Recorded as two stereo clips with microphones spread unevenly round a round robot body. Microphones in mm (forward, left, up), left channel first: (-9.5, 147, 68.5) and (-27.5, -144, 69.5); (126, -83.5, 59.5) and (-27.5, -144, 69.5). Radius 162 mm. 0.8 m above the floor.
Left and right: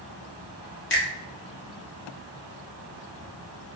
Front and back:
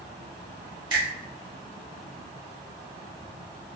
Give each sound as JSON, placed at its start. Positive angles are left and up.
{"t": 0.9, "sound": "a finger snap", "azimuth_deg": 135, "distance_m": 1.9}